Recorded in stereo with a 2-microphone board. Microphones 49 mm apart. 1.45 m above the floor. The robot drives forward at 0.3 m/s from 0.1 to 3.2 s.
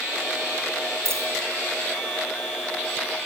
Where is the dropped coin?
60° right (ahead or behind), 3 m.